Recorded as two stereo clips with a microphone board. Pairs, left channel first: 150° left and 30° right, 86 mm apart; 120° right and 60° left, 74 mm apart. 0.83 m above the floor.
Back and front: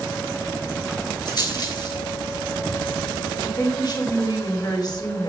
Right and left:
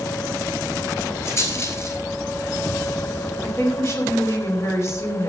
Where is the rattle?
170° right, 4.5 m.